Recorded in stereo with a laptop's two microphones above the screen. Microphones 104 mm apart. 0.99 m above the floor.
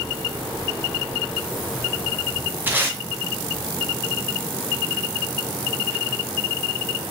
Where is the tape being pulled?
20° right (ahead or behind), 0.5 m.